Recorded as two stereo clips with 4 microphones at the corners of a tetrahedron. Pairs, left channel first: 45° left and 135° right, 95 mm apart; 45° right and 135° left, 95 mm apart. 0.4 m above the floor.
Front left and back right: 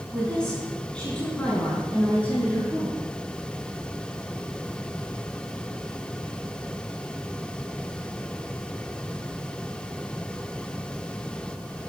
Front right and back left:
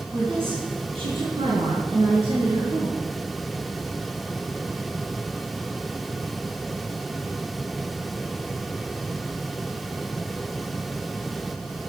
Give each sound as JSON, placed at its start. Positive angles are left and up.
{"t": 0.1, "sound": "a woman speaking", "azimuth_deg": 125, "distance_m": 4.5}